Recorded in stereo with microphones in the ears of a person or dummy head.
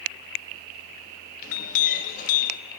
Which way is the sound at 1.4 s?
45° left (ahead or behind).